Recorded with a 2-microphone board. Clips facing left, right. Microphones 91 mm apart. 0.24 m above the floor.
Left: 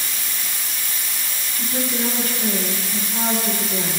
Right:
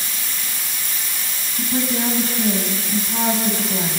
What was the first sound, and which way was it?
A woman speaking, 35° right (ahead or behind).